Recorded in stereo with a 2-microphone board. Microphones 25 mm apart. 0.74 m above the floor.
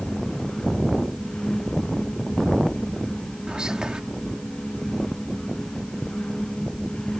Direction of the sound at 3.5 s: 35° right (ahead or behind).